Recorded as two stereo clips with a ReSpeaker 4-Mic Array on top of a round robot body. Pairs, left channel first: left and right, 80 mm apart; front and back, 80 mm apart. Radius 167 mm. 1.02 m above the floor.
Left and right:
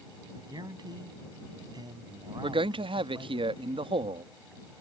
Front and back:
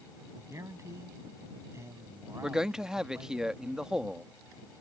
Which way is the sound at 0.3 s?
125° right.